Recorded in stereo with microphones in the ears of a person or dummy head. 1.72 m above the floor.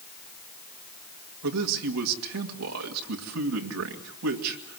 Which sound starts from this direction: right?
A man speaking, at 1.4 s.